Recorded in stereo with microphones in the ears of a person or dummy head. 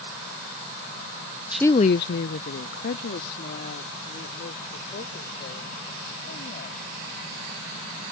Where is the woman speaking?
10° right (ahead or behind); by 7.0 s 60° left (ahead or behind).